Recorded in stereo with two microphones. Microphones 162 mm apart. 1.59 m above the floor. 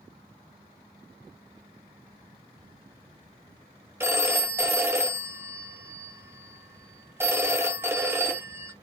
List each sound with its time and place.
4.0 s a phone ringing: 15° right (ahead or behind), 0.6 m